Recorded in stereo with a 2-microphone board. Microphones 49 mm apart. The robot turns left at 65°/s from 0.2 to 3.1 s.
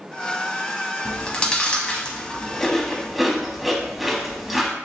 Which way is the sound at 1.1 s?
15° left (ahead or behind).